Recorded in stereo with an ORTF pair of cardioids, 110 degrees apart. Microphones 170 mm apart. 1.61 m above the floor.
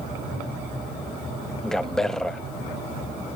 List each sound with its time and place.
1.6 s a man speaking: 5° left, 0.8 m